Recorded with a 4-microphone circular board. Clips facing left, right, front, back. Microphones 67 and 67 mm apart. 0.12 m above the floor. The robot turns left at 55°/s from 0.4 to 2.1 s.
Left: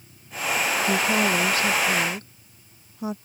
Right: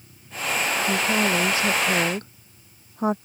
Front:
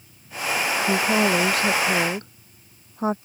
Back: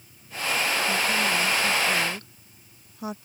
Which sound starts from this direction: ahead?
A woman speaking, at 0.9 s.